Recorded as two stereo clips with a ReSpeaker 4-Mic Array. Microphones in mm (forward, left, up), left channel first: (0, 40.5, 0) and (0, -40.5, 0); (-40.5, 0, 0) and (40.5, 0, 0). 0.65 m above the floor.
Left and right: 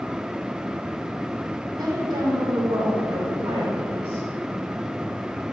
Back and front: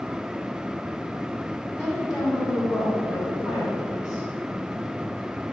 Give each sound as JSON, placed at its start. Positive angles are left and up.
{"t": 1.8, "sound": "a woman speaking", "azimuth_deg": -120, "distance_m": 2.5}